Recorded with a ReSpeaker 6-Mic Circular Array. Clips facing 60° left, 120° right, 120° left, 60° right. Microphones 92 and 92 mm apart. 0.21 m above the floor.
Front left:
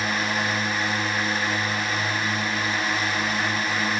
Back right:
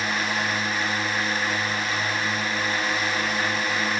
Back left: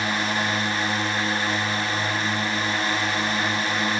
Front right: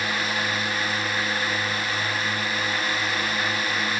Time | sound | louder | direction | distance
0.0 | a drone | front left 1 dB, back left 2 dB | 140° left | ?